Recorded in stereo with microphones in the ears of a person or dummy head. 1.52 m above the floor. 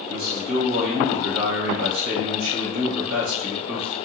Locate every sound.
0.1 s a man speaking: 70° right (ahead or behind), 1.0 m